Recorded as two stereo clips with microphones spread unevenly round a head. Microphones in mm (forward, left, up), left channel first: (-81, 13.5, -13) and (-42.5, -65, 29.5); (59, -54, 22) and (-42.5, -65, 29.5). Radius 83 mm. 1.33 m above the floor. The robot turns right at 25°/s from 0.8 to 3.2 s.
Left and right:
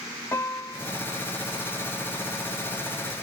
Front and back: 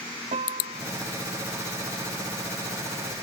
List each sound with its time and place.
0.3 s a piano: 175° right; by 0.9 s 170° right